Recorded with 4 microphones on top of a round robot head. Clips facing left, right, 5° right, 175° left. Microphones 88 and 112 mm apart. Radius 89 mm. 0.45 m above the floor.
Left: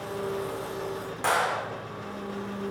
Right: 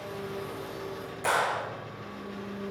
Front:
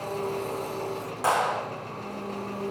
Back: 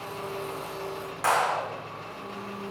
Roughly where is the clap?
Ahead left.